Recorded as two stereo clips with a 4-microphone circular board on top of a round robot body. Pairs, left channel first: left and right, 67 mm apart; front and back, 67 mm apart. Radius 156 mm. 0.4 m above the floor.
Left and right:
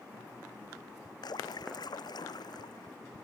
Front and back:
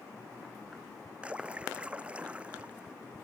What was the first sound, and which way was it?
A splash, 105° left.